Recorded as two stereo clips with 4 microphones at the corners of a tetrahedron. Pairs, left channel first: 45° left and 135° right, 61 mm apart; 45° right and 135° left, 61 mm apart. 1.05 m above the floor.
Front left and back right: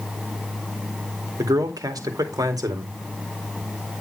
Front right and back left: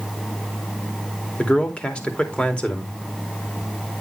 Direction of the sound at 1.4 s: 115° right.